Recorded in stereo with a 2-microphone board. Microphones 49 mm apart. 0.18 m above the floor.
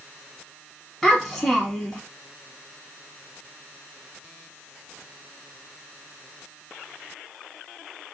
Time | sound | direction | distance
1.0 | a child speaking | 5° left (ahead or behind) | 0.7 m